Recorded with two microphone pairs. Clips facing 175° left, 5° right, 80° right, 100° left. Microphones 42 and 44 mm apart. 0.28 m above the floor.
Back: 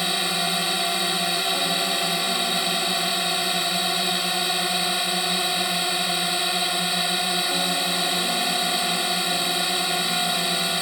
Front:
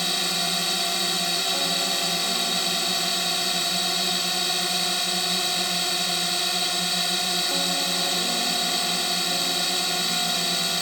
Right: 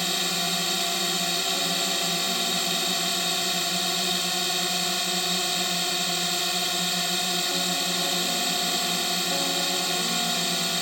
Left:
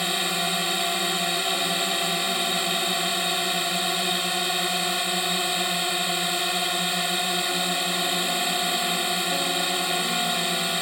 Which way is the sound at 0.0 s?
130° left.